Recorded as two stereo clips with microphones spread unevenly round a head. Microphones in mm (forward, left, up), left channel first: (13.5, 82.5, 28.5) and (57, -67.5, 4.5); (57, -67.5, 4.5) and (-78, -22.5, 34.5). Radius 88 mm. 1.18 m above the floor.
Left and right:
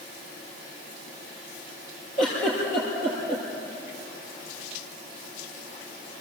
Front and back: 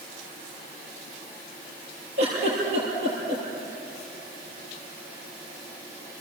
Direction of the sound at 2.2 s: 155° left.